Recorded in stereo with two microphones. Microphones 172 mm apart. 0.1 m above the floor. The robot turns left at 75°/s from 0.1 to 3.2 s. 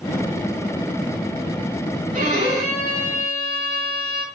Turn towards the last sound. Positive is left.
turn(degrees=150)